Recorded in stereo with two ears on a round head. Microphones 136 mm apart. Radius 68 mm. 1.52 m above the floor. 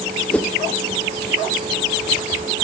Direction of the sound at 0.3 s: 5° left (ahead or behind).